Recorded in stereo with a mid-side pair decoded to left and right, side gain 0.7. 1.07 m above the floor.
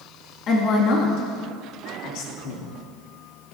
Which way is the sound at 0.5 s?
45° left.